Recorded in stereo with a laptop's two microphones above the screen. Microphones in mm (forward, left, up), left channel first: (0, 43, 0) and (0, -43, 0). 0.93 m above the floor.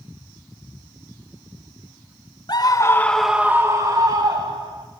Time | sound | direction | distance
2.5 | a scream | 55° left (ahead or behind) | 1.0 m